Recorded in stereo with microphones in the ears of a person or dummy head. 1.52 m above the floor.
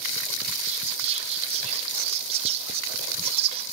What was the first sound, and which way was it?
Whispering, 35° right (ahead or behind).